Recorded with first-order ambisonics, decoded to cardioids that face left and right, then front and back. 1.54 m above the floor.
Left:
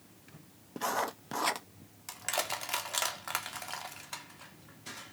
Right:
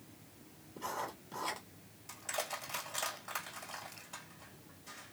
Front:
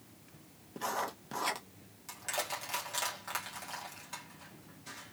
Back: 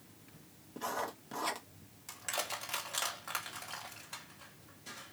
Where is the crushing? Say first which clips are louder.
Left 5 dB, front 1 dB; 90° left, 1.6 m.